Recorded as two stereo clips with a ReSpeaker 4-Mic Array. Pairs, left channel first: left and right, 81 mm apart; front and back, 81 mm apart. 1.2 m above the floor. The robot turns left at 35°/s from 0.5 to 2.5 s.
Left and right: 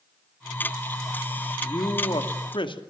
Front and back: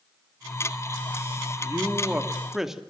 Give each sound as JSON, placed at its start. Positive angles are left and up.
{"t": 1.6, "sound": "a man speaking", "azimuth_deg": 125, "distance_m": 2.0}